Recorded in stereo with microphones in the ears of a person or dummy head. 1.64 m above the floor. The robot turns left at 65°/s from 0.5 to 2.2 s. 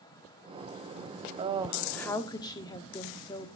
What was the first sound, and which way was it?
A woman speaking, 140° right.